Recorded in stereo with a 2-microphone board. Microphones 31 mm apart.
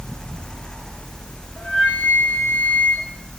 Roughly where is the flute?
Left.